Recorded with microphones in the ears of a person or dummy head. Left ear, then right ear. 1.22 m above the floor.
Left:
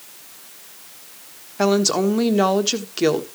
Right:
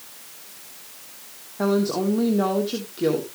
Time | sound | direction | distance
1.6 | a woman speaking | 70° left (ahead or behind) | 1.4 m